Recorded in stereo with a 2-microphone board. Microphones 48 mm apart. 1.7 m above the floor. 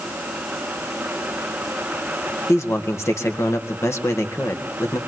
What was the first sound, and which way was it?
A man speaking, 85° left.